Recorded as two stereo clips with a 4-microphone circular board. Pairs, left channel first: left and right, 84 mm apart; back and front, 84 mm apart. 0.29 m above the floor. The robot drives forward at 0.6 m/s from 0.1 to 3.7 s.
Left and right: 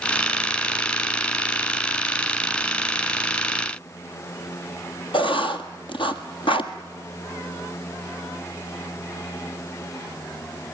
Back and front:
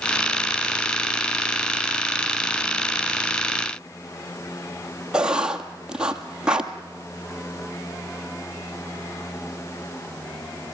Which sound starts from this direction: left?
Writing, at 5.1 s.